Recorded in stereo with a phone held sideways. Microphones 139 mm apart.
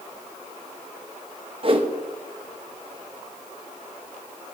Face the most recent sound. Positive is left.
turn(degrees=-40)  # may be behind; listen again after turning